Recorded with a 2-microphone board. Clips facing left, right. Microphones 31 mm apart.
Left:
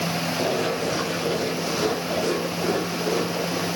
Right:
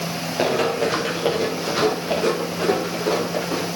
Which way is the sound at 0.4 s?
80° right.